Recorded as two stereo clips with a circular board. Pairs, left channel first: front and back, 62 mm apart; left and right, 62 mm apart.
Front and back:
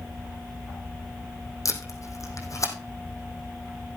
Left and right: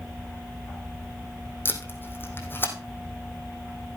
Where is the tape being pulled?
35° left, 3 m.